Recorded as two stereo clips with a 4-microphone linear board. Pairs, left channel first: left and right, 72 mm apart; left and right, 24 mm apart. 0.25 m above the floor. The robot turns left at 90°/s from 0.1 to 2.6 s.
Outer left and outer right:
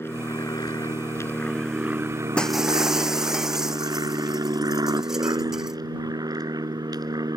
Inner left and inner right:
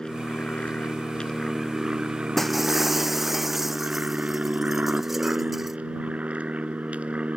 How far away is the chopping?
No chopping in this recording.